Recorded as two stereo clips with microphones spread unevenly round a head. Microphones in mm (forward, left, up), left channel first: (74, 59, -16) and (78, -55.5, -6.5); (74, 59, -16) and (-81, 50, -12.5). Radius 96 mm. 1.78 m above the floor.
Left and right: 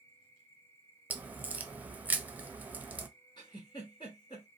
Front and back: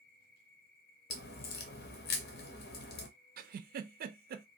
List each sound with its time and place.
0.0 s an insect: 20° left, 0.9 m
1.1 s a crack: 15° right, 0.6 m
3.4 s a giggle: 160° left, 0.5 m